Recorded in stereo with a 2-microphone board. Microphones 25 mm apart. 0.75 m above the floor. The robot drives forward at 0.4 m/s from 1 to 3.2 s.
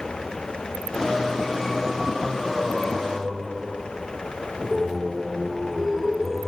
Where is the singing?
10° right (ahead or behind); by 6.5 s 15° right (ahead or behind).